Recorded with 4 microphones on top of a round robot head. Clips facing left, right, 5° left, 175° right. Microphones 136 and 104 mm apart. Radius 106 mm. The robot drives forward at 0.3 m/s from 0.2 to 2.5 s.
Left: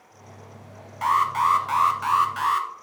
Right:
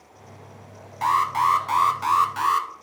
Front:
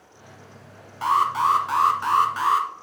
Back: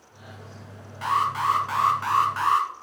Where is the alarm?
45° right, 1.4 m; by 2.7 s 65° right, 1.2 m.